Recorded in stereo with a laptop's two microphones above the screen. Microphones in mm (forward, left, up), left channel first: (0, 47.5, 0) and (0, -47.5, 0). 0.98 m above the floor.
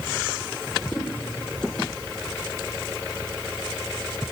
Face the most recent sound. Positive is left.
turn(degrees=10)  # may be behind; listen again after turning